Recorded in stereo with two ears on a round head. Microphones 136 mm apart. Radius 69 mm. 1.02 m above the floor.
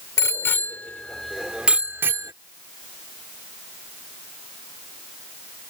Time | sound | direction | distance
0.2 | a bicycle bell | 20° left (ahead or behind) | ?